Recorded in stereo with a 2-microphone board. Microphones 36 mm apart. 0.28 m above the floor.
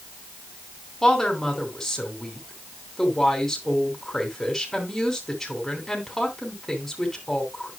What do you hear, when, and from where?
1.0 s a woman speaking: 5° left (ahead or behind), 2.5 m